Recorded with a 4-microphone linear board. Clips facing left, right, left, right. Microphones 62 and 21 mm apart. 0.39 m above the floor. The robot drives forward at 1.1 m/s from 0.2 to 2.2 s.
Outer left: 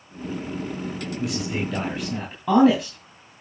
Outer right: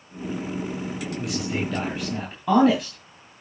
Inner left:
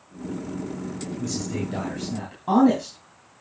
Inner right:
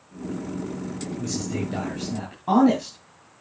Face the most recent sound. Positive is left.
turn(degrees=0)  # may be behind; listen again after turning